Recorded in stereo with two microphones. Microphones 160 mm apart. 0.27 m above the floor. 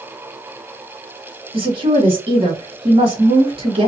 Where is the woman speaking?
35° right (ahead or behind), 1.9 m.